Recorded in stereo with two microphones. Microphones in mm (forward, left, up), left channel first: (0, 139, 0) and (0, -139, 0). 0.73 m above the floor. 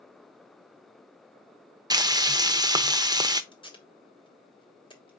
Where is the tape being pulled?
20° left (ahead or behind), 1.3 m.